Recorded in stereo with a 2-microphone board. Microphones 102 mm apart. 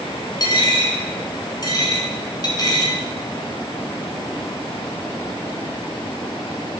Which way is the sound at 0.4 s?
40° left (ahead or behind).